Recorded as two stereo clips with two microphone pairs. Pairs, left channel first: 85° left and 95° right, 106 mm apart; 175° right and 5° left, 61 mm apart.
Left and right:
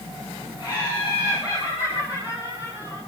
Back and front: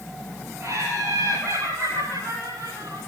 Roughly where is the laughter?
Ahead left.